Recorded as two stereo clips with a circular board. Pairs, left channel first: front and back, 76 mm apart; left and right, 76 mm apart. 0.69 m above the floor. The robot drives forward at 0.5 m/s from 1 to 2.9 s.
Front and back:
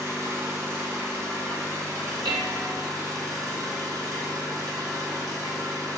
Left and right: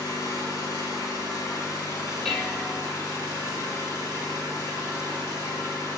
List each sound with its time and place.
0.0 s an engine running: 130° left, 4.5 m; by 6.0 s 135° left, 5 m
2.2 s dishes clattering: 175° left, 1.5 m